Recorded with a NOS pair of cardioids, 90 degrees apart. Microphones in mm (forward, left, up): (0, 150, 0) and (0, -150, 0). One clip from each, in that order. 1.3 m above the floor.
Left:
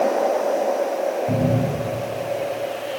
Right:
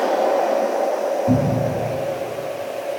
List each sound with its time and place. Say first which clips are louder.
1.3 s a cupboard door: right 2 dB; 65° right, 3 m